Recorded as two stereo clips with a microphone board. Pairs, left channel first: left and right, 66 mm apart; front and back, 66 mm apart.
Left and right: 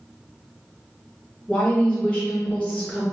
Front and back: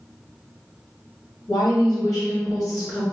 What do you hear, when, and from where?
1.5 s a woman speaking: 20° left, 1.3 m